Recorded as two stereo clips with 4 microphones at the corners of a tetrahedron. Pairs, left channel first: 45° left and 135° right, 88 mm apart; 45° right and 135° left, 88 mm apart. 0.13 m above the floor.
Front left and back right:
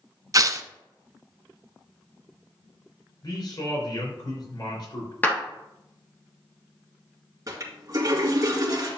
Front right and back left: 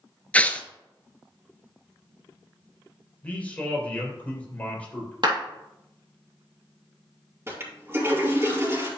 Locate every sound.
0.3 s tearing paper: 110° right, 0.6 m
3.2 s a man speaking: 25° left, 3.5 m
5.2 s a clap: 115° left, 2.5 m
7.5 s a toilet flushing: 170° right, 2 m